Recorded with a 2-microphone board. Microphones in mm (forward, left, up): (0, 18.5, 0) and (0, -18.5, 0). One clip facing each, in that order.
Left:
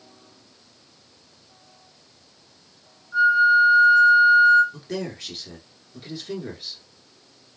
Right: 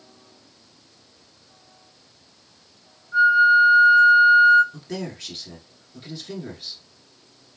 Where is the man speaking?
5° left (ahead or behind), 1.1 m.